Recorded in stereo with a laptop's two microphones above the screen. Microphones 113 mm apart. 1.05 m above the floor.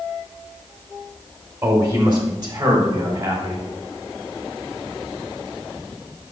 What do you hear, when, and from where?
1.6 s a man speaking: 30° right (ahead or behind), 3 m; by 3.7 s 45° right (ahead or behind), 5 m